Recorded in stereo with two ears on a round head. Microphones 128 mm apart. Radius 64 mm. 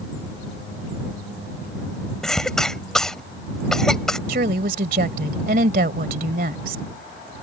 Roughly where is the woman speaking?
Right.